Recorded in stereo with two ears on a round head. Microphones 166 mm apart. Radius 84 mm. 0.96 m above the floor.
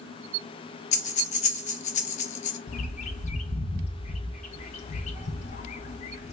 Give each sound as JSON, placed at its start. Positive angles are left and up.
{"t": 0.9, "sound": "breathing", "side_deg": 40, "distance_m": 0.6}
{"t": 2.7, "sound": "a bird", "side_deg": 40, "distance_m": 0.6}